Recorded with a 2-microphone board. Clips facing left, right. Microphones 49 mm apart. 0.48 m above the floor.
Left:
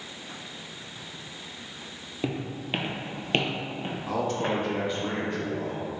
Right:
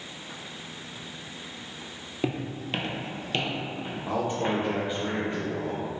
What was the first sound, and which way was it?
Footsteps, 5° right (ahead or behind).